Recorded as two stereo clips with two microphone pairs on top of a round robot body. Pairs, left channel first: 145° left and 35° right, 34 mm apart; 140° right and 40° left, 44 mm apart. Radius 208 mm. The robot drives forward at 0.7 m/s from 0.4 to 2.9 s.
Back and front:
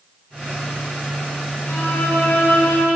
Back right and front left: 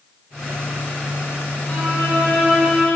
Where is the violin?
160° left, 10 m.